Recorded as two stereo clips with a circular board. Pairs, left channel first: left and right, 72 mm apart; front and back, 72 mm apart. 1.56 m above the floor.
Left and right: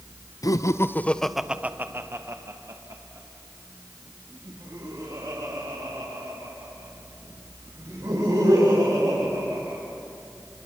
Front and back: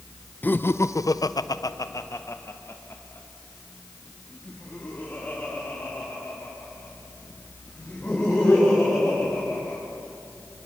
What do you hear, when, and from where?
0.4 s laughter: 65° left, 0.8 m; by 9.8 s 70° right, 7 m